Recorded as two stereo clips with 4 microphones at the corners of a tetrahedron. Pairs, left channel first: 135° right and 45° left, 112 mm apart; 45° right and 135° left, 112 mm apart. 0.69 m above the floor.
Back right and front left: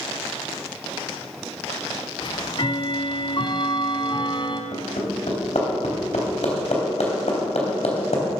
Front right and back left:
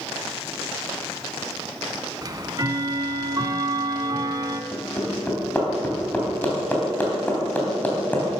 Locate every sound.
2.2 s ticking: 175° right, 1.2 m
4.7 s hammering: 120° right, 3.5 m